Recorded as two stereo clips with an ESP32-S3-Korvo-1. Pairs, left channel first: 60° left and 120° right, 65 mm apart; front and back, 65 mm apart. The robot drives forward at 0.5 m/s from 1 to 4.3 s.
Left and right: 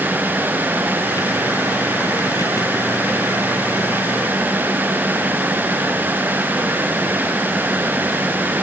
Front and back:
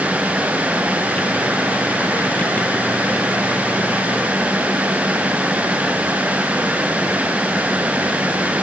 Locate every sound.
Only background noise.